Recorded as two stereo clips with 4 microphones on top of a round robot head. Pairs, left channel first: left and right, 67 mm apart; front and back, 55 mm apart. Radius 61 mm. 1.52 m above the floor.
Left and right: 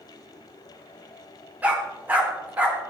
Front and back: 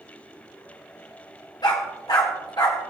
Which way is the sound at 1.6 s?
25° right.